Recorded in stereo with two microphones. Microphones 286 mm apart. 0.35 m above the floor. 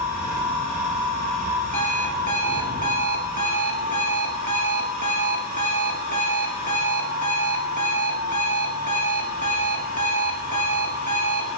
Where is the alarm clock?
75° right (ahead or behind), 1.4 m.